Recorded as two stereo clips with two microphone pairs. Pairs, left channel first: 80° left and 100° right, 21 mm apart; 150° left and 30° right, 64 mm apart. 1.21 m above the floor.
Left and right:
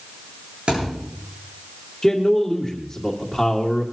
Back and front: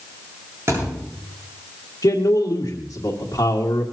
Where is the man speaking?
155° left, 2 m.